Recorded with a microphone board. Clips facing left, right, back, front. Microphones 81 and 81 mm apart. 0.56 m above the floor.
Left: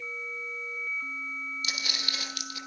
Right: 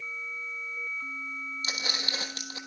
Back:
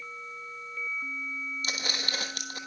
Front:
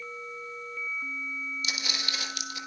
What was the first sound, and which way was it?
Footsteps, 145° right.